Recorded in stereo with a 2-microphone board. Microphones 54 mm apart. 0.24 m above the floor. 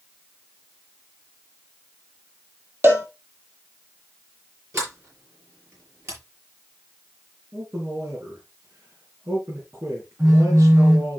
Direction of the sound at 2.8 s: 40° right (ahead or behind).